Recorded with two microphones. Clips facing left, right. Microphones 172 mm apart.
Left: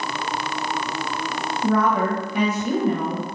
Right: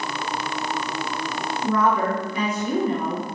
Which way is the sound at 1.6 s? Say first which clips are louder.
Left 1 dB; 70° left (ahead or behind).